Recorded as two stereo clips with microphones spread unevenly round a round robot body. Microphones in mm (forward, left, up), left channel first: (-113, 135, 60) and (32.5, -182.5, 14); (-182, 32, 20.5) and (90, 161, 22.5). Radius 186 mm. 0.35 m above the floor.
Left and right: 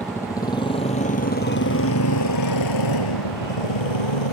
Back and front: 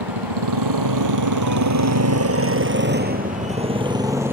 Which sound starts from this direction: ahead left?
A motorcycle, at 0.0 s.